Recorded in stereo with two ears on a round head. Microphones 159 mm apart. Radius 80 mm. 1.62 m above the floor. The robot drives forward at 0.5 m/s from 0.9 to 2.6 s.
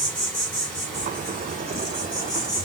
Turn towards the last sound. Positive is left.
turn(degrees=5)  # may be behind; listen again after turning